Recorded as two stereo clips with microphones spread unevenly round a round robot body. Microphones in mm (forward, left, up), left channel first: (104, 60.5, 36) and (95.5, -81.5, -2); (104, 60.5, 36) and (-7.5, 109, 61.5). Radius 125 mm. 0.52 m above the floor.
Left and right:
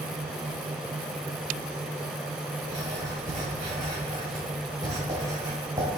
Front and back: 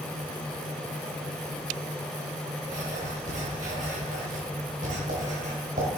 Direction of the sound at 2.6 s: 160° right.